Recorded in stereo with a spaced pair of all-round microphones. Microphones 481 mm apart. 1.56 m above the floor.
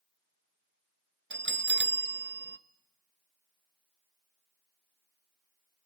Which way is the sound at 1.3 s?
25° right (ahead or behind).